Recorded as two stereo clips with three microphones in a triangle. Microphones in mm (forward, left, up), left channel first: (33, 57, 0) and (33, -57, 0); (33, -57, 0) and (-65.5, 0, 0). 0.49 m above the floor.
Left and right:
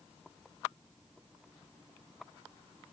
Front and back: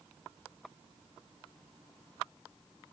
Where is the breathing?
No breathing in this recording.